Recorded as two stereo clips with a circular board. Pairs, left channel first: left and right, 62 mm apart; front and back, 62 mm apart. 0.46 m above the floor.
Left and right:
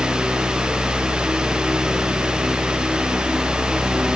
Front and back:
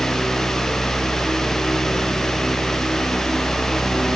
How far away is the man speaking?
No man speaking in this recording.